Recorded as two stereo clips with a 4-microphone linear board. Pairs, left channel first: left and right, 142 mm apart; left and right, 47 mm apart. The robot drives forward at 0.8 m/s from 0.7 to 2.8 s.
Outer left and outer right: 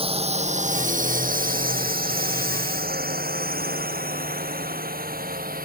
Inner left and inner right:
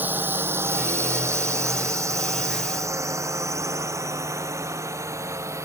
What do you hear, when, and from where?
0.0 s a drone: 40° right (ahead or behind); by 5.7 s 75° right (ahead or behind)